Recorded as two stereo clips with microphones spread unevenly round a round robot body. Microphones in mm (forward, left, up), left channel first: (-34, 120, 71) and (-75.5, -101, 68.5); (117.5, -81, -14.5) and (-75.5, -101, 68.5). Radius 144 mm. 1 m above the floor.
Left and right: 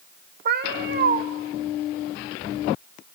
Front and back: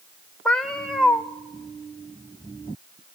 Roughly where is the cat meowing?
Behind right.